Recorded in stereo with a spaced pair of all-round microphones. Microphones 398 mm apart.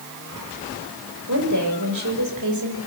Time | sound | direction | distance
1.3 | a woman speaking | 45° right (ahead or behind) | 5 m